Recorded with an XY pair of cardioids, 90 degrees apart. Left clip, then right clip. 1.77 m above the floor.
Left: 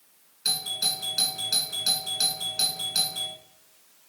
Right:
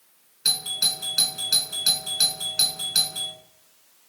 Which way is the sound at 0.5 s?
45° right.